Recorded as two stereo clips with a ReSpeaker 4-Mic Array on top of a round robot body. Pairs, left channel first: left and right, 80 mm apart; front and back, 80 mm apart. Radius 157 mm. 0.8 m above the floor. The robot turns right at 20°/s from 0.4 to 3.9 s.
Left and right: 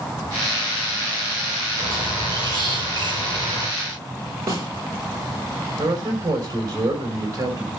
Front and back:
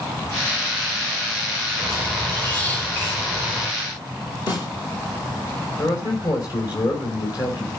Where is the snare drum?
30° right, 7.5 m.